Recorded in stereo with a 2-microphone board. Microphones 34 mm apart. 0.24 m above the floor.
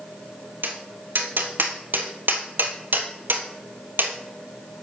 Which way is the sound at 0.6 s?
80° right.